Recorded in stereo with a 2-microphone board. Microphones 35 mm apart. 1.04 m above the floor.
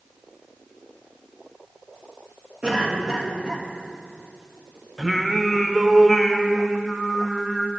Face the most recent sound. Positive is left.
turn(degrees=0)  # may be behind; listen again after turning